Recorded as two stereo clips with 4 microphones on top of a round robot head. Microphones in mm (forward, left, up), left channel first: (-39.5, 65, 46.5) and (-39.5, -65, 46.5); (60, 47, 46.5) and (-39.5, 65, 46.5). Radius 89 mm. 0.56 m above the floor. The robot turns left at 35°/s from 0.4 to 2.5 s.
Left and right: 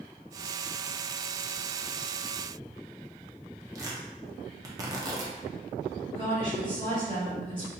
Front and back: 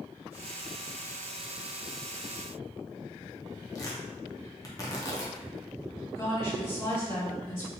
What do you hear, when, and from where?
3.8 s tearing paper: 40° right, 0.7 m
6.2 s a woman speaking: 15° left, 1.7 m